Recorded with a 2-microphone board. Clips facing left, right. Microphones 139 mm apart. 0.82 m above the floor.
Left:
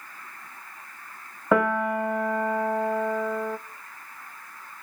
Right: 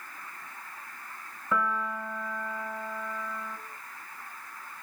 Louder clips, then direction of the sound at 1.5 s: Left 8 dB; 70° left (ahead or behind).